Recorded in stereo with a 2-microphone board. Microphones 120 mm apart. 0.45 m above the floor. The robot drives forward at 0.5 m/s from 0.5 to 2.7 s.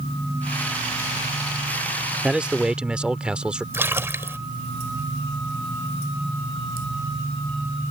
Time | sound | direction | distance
2.2 | a man speaking | 10° right (ahead or behind) | ?
3.7 | a splash | 20° right (ahead or behind) | ?